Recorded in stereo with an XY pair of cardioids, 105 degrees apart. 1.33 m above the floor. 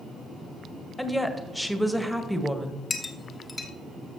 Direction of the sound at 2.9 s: 35° left.